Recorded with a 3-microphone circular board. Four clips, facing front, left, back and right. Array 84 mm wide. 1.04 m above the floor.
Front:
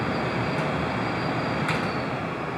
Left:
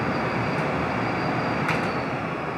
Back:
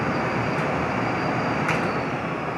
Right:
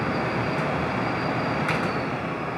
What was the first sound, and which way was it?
Only background noise.